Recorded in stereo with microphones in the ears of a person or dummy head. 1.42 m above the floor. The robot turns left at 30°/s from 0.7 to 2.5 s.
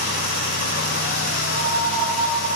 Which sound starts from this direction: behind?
A piano, at 1.5 s.